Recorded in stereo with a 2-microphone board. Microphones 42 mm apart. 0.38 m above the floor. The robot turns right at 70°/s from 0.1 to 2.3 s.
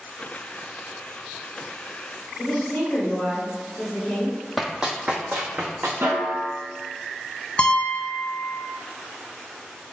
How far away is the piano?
About 0.5 m.